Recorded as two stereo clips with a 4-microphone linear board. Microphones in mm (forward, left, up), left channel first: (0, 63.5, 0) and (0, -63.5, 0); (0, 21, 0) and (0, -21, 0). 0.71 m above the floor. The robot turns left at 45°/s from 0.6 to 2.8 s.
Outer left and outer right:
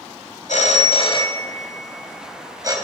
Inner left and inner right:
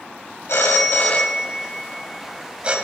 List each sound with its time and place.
0.5 s a phone ringing: 65° left (ahead or behind), 2 m; by 2.8 s 30° right (ahead or behind), 2 m